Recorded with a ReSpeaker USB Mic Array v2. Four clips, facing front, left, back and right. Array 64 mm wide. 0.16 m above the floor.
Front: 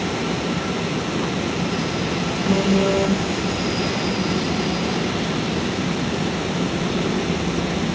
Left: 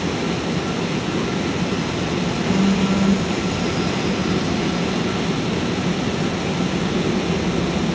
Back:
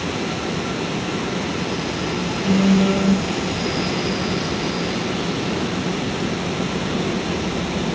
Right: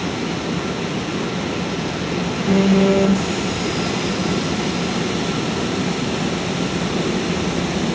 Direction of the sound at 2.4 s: 95° right.